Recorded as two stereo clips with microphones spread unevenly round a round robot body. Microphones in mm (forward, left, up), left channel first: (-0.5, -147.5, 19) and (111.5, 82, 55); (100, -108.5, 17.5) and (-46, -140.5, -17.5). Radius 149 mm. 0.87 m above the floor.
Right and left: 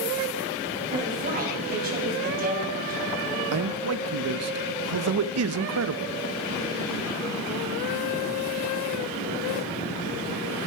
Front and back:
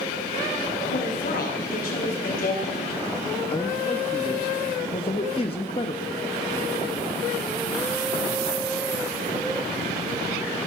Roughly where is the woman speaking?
Ahead.